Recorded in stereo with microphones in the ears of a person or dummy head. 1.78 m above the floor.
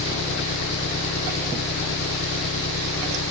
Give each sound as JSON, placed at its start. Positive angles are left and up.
{"t": 0.0, "sound": "an engine running", "side_deg": 60}